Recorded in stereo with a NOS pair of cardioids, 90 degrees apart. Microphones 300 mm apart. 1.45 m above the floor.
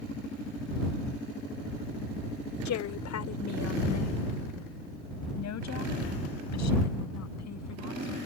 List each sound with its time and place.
2.6 s a woman speaking: 70° left; by 8.2 s 65° left